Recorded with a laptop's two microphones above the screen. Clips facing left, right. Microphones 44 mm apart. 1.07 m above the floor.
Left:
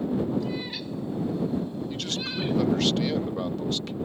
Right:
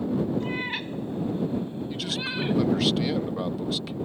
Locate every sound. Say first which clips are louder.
0.4 s a cat meowing: right 2 dB; 40° right (ahead or behind); by 2.6 s 20° right (ahead or behind)
1.9 s a man speaking: right 1 dB; 5° right (ahead or behind)